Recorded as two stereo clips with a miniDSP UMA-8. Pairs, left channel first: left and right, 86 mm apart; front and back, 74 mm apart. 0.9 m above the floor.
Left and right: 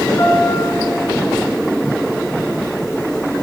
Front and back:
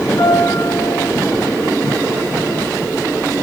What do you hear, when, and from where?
0.2 s a piano: 35° left, 8.5 m